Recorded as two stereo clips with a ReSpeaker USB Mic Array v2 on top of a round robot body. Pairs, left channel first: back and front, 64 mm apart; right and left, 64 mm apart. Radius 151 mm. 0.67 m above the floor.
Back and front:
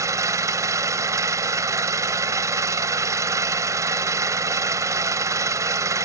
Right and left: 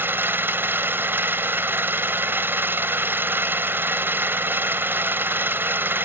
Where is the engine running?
35° left.